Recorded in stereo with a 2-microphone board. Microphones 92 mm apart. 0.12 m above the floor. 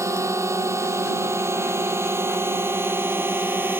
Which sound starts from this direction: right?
A drone, at 0.0 s.